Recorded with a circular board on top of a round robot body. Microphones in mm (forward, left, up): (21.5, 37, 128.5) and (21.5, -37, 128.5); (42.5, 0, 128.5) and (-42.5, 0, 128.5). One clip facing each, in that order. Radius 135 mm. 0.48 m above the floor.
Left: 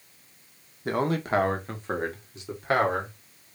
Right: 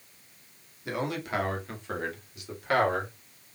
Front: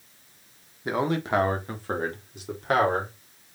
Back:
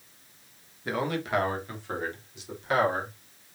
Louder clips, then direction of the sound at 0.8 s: Left 6 dB, front 4 dB; 65° left.